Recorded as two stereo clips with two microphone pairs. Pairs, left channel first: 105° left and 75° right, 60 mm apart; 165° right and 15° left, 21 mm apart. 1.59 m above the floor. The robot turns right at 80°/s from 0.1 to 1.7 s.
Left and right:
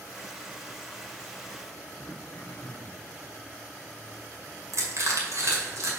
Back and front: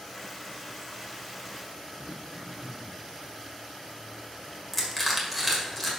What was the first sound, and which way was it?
Throat clearing, 60° left.